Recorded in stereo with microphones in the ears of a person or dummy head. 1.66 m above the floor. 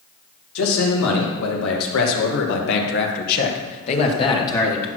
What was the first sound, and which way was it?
A man speaking, 85° left.